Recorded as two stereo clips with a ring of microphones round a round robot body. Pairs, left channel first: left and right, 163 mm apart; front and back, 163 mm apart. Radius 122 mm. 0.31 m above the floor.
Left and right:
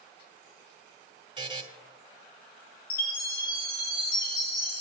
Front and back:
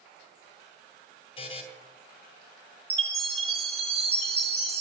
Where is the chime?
130° left, 4 m.